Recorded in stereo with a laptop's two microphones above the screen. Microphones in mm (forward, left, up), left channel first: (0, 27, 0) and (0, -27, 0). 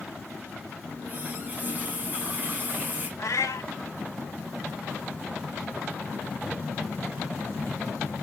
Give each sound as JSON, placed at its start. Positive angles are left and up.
{"t": 0.8, "sound": "a running tap", "side_deg": -35, "distance_m": 3.5}
{"t": 3.2, "sound": "a cat meowing", "side_deg": 70, "distance_m": 0.7}